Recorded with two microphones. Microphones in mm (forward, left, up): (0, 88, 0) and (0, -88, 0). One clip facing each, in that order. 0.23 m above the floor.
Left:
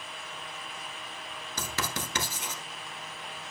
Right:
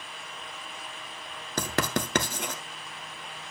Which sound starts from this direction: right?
Writing, at 1.6 s.